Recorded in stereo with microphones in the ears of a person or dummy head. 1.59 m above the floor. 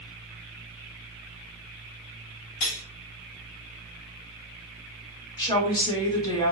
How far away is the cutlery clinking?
About 0.7 m.